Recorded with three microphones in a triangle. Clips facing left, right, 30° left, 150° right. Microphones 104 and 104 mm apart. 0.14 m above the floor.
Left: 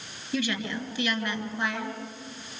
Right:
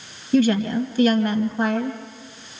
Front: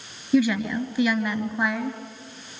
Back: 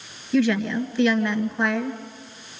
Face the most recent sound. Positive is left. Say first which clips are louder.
# right 12 dB, even
turn(degrees=-50)